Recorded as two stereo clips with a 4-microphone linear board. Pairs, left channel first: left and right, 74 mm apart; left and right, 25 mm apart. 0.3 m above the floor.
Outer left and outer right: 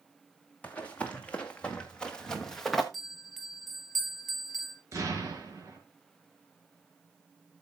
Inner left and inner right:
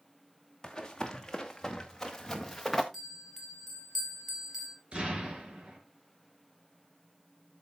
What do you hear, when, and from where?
0.6 s running footsteps: 20° left (ahead or behind), 2.5 m; by 2.8 s centre (ahead or behind), 1.7 m
2.9 s a bell: centre (ahead or behind), 3 m
4.9 s an explosion: 45° right (ahead or behind), 5 m